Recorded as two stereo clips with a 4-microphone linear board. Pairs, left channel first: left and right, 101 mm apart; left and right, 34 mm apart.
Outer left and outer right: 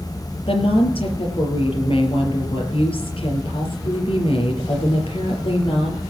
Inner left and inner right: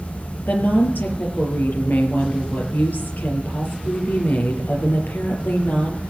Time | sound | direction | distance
0.5 | a woman speaking | 65° left (ahead or behind) | 4.5 m